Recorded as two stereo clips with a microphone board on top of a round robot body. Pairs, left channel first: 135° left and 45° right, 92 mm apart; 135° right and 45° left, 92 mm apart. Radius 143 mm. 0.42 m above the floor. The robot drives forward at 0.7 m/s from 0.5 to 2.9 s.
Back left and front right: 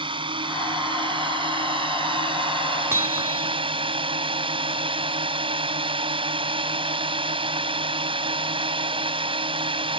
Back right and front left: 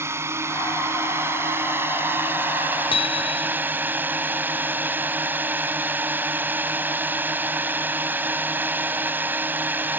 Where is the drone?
15° right; by 10.0 s 25° right.